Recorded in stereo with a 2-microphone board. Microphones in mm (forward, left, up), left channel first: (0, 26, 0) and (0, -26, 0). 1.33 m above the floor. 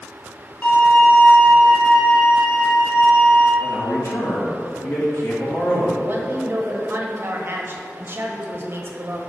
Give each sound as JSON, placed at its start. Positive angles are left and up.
{"t": 0.6, "sound": "a violin", "side_deg": 30, "distance_m": 2.0}
{"t": 3.6, "sound": "a man speaking", "side_deg": 55, "distance_m": 1.7}
{"t": 6.0, "sound": "a woman speaking", "side_deg": -45, "distance_m": 1.1}